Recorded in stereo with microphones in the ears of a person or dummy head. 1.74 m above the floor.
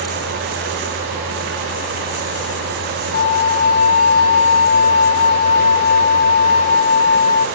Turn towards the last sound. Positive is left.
turn(degrees=30)  # may be behind; listen again after turning